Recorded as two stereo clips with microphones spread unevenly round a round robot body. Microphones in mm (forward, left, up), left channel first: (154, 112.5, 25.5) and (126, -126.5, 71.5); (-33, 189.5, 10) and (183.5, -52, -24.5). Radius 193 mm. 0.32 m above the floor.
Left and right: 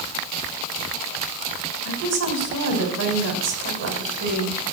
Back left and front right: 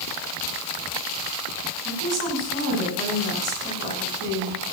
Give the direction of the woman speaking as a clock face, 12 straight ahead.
3 o'clock.